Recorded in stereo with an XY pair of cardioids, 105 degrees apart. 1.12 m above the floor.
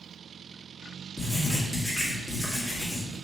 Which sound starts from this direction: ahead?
Writing, at 1.2 s.